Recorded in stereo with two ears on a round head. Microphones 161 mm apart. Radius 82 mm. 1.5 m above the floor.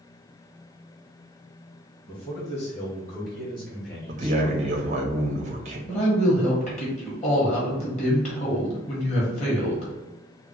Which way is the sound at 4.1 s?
40° right (ahead or behind).